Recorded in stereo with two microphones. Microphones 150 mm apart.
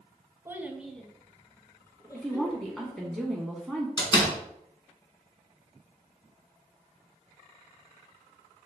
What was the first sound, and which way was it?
A child speaking, 20° right (ahead or behind).